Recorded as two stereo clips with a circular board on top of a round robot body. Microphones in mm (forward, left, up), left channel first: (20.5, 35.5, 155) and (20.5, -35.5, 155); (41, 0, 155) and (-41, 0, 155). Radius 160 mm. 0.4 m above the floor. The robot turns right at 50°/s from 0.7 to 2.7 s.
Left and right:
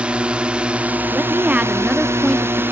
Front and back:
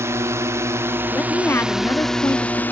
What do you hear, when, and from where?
0.0 s a drone: 155° right; by 2.7 s 55° right
1.1 s a woman speaking: 55° right; by 2.6 s 20° left